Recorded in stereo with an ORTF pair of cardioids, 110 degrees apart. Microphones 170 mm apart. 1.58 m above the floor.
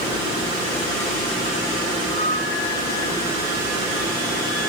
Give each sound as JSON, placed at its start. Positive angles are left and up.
{"t": 2.1, "sound": "a flute", "azimuth_deg": -55, "distance_m": 5.0}